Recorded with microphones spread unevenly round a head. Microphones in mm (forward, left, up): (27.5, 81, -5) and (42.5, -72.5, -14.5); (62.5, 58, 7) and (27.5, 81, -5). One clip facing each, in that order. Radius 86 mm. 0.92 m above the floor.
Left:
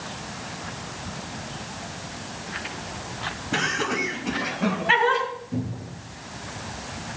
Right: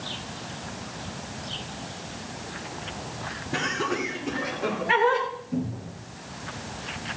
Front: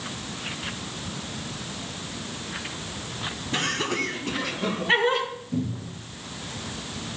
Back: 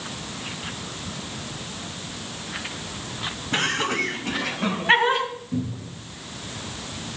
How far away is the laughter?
About 5 m.